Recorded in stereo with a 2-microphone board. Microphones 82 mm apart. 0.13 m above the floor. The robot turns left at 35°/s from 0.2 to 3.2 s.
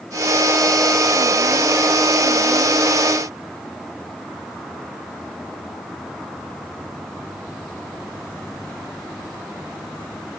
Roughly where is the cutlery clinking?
I don't hear cutlery clinking.